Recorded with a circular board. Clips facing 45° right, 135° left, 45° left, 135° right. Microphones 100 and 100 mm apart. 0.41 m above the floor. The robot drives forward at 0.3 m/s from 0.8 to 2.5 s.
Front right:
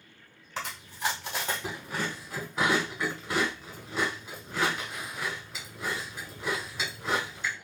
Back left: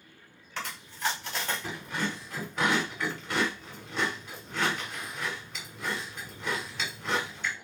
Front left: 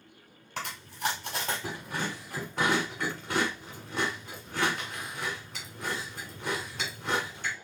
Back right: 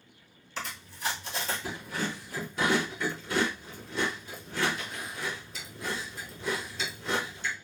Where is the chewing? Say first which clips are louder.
Front right 2 dB, front left 4 dB; 25° left, 1.8 m; by 7.5 s 40° left, 1.4 m.